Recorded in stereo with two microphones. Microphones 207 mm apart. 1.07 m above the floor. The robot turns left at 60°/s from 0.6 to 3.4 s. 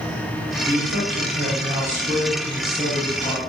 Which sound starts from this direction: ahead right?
A man speaking, at 0.7 s.